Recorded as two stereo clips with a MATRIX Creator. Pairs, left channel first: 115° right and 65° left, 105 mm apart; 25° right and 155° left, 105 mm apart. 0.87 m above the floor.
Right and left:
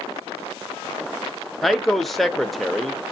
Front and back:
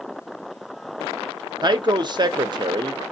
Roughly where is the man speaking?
Behind.